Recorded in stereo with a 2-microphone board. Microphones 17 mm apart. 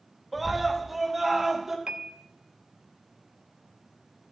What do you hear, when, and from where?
0.3 s a scream: centre (ahead or behind), 1.7 m; by 1.8 s 20° right (ahead or behind), 3 m
1.9 s a piano: 80° right, 0.7 m